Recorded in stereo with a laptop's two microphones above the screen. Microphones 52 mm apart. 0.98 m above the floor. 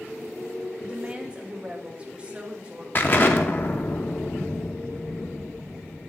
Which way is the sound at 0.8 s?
20° right (ahead or behind).